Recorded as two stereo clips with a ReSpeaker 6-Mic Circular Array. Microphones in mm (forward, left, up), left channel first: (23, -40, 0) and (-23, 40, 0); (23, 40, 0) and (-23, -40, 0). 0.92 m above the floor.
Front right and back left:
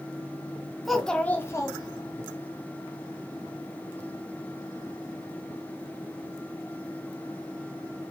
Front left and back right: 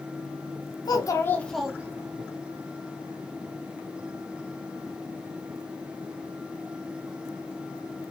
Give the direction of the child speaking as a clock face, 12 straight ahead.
11 o'clock.